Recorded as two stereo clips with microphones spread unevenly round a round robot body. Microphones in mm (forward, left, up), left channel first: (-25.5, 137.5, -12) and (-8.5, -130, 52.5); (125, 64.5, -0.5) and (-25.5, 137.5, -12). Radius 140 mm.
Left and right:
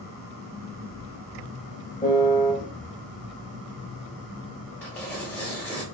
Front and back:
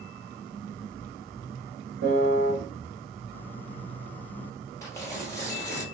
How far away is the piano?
About 0.9 m.